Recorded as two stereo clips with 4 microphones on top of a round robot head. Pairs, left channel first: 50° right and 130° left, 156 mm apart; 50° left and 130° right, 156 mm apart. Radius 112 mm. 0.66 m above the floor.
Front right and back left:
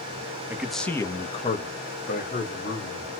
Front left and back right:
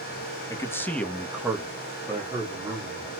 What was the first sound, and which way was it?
A man speaking, 75° left.